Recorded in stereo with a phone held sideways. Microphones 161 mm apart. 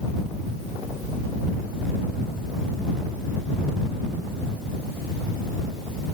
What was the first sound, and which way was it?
Only background noise.